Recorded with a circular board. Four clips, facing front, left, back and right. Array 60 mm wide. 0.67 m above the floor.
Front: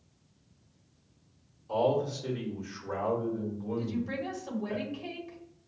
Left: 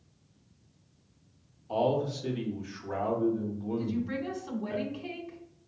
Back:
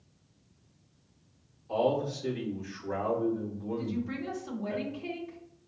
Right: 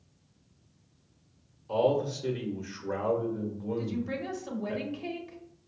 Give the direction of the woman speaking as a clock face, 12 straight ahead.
2 o'clock.